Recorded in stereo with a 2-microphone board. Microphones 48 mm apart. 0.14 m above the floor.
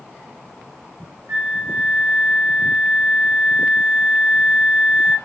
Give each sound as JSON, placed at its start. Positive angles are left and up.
{"t": 1.3, "sound": "a flute", "side_deg": -60, "distance_m": 1.0}